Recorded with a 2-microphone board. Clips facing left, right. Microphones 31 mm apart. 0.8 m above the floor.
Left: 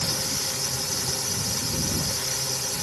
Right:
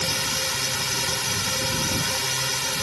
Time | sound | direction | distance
0.0 | a drone | 60° right (ahead or behind) | ?